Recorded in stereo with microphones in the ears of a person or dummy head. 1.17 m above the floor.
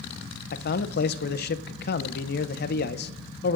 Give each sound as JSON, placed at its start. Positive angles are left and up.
{"t": 0.5, "sound": "a man speaking", "side_deg": 50, "distance_m": 0.6}